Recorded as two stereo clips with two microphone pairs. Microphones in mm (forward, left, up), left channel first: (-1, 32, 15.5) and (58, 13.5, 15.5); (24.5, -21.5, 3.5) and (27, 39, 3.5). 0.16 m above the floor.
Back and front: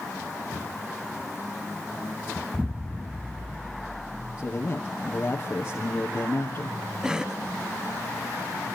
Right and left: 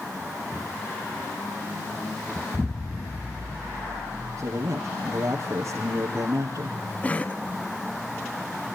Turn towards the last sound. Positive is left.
turn(degrees=-80)